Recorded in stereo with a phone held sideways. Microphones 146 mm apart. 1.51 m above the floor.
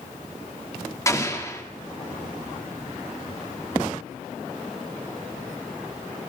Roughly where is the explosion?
Left.